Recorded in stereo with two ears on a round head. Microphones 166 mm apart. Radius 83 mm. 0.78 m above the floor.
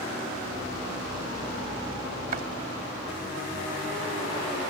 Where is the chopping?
50° right (ahead or behind).